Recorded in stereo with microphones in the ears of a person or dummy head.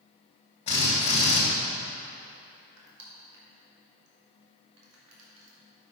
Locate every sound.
0.7 s a drill: 30° left (ahead or behind), 3.5 m
2.8 s crushing: 85° right, 2.5 m